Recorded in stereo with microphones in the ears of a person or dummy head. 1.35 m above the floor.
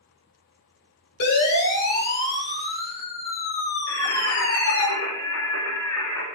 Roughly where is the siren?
Left.